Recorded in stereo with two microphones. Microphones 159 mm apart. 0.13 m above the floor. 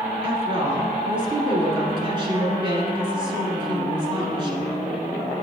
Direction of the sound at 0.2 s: 30° right (ahead or behind).